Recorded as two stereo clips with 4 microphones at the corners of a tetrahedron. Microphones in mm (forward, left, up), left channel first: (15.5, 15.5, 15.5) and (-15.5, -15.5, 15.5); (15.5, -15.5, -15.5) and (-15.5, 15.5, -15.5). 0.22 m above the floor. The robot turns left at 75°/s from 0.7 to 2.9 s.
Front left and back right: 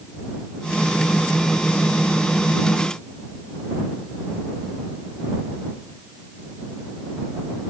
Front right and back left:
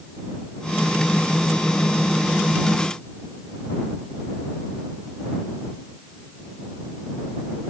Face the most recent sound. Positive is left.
No sound to turn to.